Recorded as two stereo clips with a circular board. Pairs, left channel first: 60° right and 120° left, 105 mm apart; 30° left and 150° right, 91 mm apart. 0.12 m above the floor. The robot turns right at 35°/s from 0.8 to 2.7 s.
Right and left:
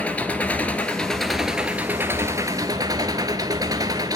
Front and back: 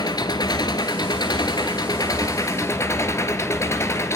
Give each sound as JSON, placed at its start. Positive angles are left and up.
{"t": 0.0, "sound": "an engine running", "azimuth_deg": 15, "distance_m": 1.3}